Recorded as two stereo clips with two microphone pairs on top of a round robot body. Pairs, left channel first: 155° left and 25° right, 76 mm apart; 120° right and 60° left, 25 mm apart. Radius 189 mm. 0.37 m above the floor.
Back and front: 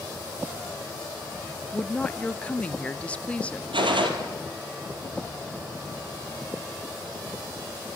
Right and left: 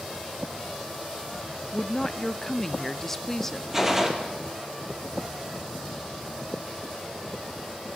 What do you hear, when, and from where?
1.7 s a woman speaking: 155° right, 1.2 m
3.7 s a gunshot: 20° right, 3 m